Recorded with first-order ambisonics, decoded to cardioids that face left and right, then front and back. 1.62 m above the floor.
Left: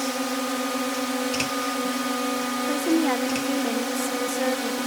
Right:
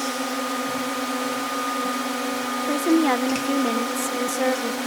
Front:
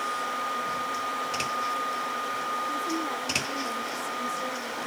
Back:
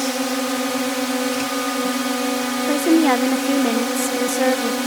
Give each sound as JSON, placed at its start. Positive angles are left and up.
{"t": 0.0, "sound": "a drone", "azimuth_deg": 175}
{"t": 2.7, "sound": "a woman speaking", "azimuth_deg": -170}